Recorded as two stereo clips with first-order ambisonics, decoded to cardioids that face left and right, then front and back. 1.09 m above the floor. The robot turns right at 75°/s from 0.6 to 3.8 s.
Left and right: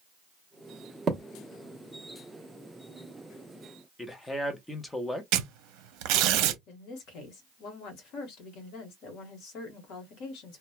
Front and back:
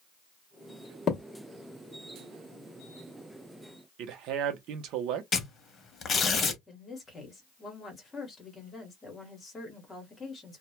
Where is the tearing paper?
65° right, 0.5 m.